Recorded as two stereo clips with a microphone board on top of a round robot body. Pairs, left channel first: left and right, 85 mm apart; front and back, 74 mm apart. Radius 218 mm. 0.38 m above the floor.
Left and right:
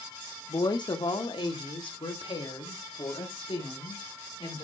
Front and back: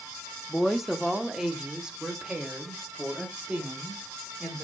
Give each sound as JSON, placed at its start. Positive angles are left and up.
{"t": 0.5, "sound": "a woman speaking", "azimuth_deg": 90, "distance_m": 1.3}